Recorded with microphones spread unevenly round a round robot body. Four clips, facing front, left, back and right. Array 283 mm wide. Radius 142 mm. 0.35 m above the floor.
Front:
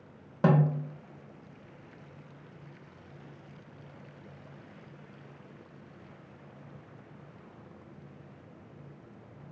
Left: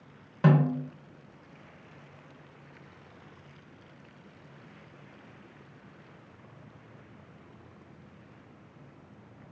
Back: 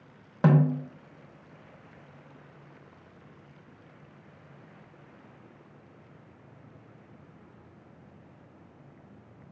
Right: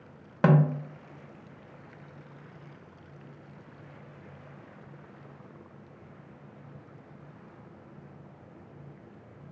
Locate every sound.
0.4 s a snare drum: 100° right, 0.6 m